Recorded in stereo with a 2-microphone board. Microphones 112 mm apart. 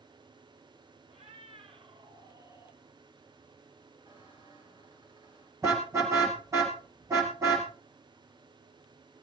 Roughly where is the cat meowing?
Right.